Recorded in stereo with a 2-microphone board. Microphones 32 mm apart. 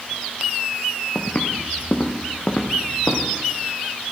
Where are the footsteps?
65° left (ahead or behind), 2 m; by 3.3 s 35° left (ahead or behind), 2.5 m.